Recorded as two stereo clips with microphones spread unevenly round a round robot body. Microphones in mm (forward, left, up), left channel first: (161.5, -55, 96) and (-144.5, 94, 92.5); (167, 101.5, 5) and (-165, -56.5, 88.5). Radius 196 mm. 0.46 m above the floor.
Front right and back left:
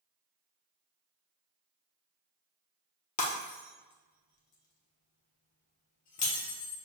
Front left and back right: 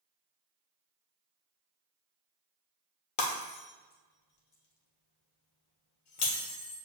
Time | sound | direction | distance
3.2 | breaking glass | 20° left | 1.3 m